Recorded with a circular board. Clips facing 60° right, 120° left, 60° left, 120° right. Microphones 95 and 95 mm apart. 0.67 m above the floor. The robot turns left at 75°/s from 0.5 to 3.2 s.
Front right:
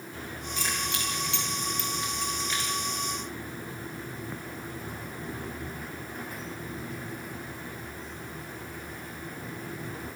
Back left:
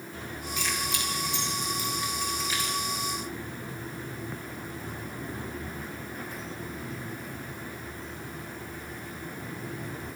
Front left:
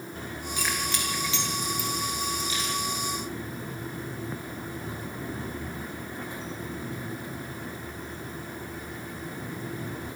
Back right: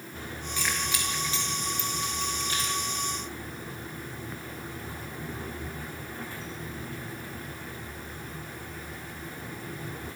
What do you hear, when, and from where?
0.6 s keys jangling: 10° right, 8.5 m; by 2.8 s 175° right, 8.5 m